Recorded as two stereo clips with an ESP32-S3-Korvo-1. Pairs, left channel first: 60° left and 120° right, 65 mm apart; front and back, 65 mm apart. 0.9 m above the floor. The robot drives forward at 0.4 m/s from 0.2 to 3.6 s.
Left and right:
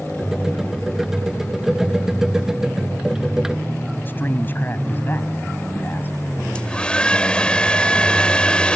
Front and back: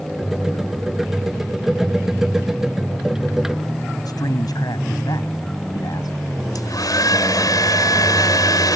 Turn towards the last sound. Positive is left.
turn(degrees=-15)